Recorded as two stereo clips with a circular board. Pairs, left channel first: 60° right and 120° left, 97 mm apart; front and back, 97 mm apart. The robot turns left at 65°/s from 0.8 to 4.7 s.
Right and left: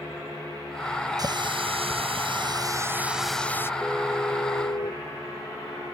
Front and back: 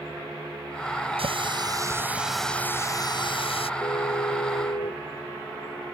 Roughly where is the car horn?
Ahead left.